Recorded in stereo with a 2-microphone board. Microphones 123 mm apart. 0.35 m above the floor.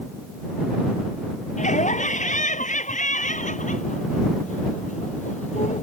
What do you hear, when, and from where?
1.6 s laughter: 75° left (ahead or behind); by 5.8 s 70° left (ahead or behind)